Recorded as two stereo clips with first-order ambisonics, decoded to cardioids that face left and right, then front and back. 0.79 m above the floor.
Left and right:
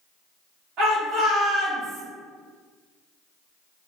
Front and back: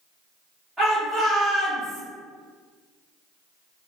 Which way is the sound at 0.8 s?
100° right.